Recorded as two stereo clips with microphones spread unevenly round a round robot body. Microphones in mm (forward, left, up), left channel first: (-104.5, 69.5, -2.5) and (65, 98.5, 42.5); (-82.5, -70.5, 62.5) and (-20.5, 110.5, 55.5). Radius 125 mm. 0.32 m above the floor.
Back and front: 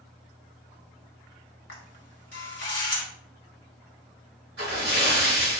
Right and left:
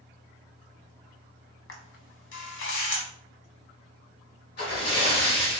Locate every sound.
1.7 s a camera shutter: 120° right, 1.2 m
4.6 s a splash: 60° right, 2 m